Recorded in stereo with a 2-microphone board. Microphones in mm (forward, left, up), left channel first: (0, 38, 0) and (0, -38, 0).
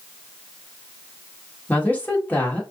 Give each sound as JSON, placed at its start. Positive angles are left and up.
{"t": 1.7, "sound": "a woman speaking", "side_deg": 25, "distance_m": 1.9}